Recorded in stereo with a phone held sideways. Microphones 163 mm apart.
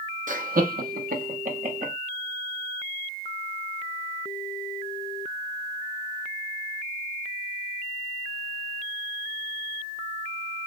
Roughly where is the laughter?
Right.